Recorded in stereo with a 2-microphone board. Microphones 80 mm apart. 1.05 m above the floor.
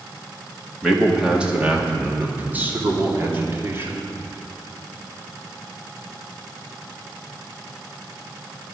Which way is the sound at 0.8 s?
5° right (ahead or behind).